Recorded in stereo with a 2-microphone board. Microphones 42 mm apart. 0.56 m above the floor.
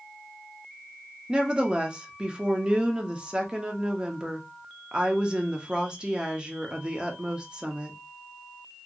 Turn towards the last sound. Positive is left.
turn(degrees=-20)  # may be behind; listen again after turning